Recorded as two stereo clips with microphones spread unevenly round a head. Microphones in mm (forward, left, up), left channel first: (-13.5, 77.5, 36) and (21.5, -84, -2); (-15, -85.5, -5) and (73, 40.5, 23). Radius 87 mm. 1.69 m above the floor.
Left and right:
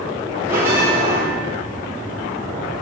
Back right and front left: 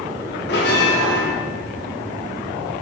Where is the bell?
155° right, 4 m.